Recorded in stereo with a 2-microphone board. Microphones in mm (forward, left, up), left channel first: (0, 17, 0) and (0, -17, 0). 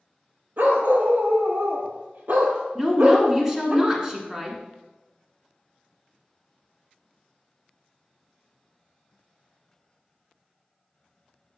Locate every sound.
0.6 s a dog barking: 60° right (ahead or behind), 1.3 m; by 3.8 s 30° right (ahead or behind), 1.5 m
2.8 s a woman speaking: 20° right (ahead or behind), 1.1 m